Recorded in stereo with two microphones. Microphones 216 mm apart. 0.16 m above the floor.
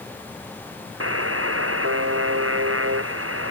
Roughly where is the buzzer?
Right.